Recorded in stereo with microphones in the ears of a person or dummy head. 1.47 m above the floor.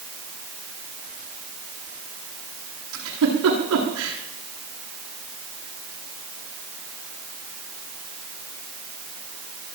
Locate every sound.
2.9 s a giggle: 70° right (ahead or behind), 8.5 m